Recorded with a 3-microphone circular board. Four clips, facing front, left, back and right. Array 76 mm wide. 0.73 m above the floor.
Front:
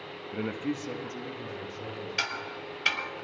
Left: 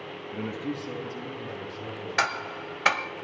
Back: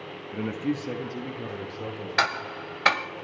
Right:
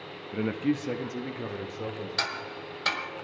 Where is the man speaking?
55° right, 0.7 m; by 2.1 s 120° right, 2.5 m.